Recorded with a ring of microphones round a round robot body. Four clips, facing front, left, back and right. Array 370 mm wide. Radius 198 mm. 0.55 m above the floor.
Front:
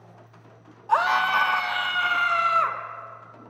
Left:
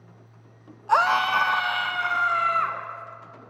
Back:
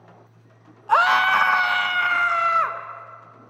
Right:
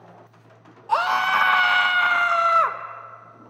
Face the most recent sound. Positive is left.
turn(degrees=-95)